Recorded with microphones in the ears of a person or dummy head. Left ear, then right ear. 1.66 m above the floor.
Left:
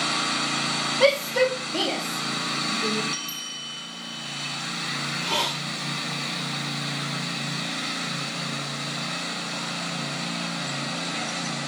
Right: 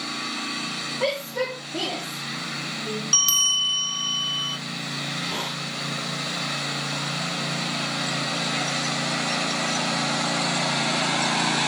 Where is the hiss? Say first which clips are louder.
Left 4 dB; 55° left (ahead or behind), 1.7 m.